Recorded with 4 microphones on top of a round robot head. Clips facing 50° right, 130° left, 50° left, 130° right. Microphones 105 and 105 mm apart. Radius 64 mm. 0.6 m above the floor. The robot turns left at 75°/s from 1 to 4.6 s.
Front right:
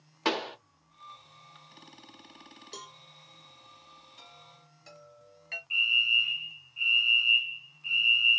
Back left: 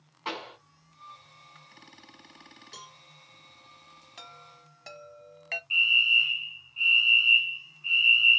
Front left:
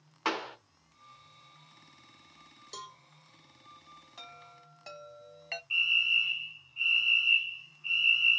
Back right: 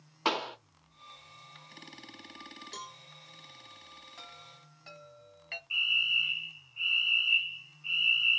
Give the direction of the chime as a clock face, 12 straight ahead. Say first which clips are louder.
Back left 5 dB, front left 1 dB; 8 o'clock.